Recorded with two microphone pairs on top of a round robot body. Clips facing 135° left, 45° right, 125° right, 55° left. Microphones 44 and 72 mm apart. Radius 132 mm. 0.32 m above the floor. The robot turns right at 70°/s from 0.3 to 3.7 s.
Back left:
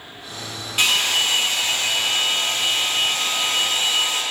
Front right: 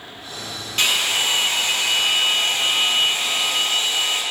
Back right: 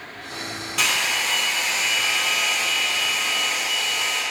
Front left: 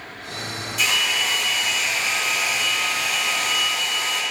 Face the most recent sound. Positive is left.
turn(degrees=60)